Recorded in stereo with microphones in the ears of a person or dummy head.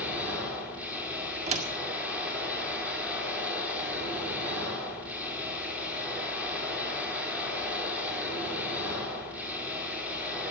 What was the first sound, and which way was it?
A machine running, 10° right (ahead or behind).